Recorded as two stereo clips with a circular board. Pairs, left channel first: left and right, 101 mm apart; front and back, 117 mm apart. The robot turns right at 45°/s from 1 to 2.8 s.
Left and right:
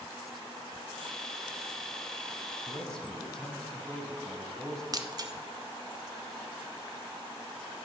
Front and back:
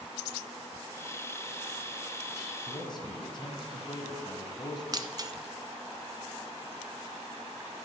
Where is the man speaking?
5° left, 1.5 m; by 4.8 s 10° left, 1.5 m.